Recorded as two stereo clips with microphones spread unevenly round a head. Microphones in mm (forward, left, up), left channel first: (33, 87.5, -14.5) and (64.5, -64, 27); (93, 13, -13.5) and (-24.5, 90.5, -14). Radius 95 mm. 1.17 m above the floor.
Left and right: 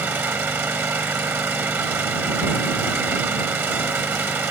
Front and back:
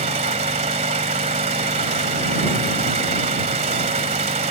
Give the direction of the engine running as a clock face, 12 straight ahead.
5 o'clock.